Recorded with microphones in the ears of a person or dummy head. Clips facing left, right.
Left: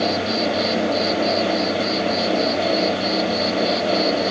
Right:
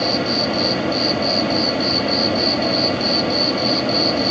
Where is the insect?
55° right (ahead or behind).